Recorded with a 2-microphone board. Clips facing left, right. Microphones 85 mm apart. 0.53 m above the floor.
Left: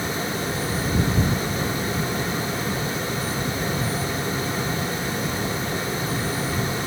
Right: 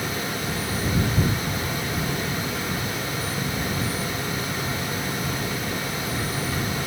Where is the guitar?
I don't hear a guitar.